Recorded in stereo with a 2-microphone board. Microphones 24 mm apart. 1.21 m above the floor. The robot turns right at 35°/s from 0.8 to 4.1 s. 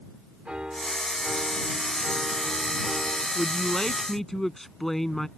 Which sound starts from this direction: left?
A man speaking, at 3.4 s.